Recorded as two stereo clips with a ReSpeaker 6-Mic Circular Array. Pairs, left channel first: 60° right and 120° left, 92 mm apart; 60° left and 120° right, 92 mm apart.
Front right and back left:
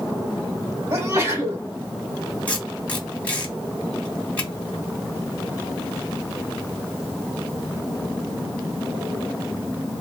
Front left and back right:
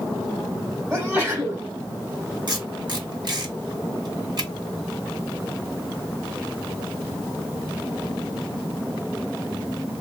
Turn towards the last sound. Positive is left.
turn(degrees=-130)